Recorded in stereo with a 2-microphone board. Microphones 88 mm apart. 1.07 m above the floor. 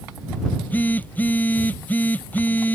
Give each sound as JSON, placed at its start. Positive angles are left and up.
{"t": 0.5, "sound": "a phone buzzing", "side_deg": 20}